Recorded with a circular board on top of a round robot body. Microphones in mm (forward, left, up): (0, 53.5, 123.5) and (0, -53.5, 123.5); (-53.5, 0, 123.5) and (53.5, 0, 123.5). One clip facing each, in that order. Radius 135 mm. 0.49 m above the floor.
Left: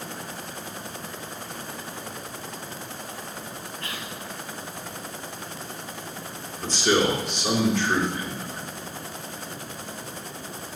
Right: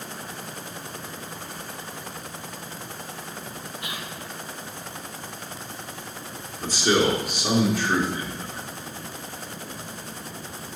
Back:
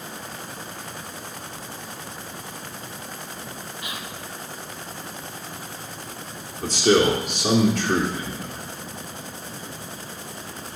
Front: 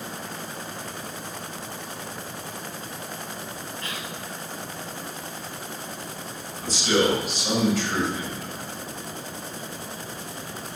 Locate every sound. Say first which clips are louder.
3.8 s whispering: right 1 dB, even; 130° right, 1.0 m
6.6 s a man speaking: right 1 dB, back 4 dB; 165° right, 1.9 m